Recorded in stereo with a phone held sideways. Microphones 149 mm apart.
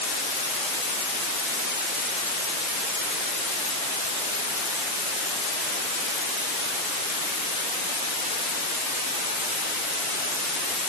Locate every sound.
Only background noise.